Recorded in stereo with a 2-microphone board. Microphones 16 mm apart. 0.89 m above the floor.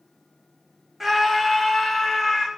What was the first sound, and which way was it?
A scream, 10° right (ahead or behind).